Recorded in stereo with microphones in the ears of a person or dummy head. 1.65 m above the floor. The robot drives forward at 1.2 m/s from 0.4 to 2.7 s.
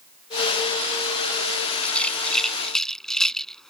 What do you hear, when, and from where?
1.8 s a rattle: 5° left (ahead or behind)